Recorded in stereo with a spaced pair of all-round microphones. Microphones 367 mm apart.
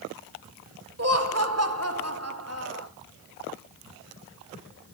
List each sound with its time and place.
1.0 s laughter: 40° right (ahead or behind), 2.0 m